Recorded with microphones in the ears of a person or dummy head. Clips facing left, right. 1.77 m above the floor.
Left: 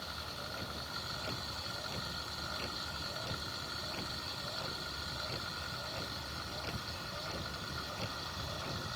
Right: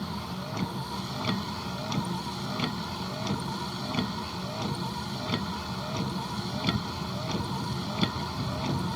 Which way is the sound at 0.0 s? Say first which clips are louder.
Right 11 dB; 80° right.